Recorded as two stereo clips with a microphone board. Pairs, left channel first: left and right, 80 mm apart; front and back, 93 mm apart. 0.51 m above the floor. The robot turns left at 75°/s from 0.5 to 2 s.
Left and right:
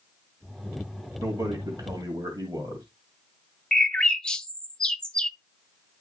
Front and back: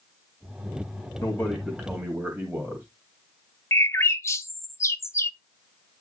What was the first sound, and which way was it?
A man speaking, 55° right.